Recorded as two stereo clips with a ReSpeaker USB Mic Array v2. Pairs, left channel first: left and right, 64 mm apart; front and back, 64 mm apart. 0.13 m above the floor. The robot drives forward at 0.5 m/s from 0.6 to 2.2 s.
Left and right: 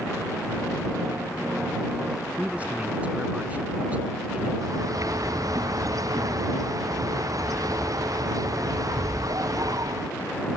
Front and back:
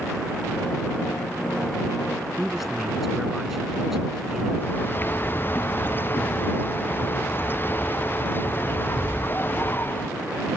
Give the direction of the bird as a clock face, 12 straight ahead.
2 o'clock.